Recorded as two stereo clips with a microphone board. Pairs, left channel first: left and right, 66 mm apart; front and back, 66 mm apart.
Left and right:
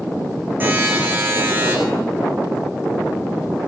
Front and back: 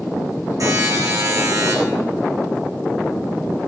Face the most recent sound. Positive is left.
turn(degrees=-150)